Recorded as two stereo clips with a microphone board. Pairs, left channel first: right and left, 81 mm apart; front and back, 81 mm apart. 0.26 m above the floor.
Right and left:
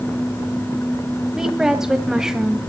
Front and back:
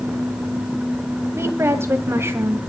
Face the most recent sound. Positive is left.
turn(degrees=170)